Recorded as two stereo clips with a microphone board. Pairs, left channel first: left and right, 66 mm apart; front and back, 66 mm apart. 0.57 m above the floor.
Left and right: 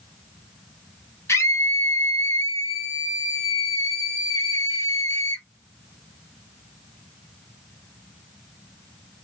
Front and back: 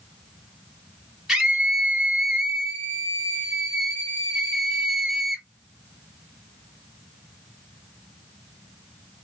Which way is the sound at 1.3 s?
100° left.